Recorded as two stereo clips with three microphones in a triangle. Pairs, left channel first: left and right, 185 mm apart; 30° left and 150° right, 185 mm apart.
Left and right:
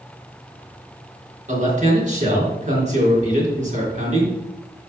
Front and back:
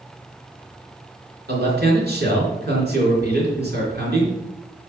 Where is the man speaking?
135° right, 4 m.